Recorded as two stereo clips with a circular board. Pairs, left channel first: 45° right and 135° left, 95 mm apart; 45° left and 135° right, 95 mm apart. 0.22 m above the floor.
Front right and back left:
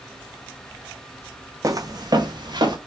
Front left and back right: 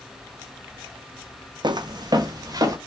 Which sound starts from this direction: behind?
Footsteps, at 1.6 s.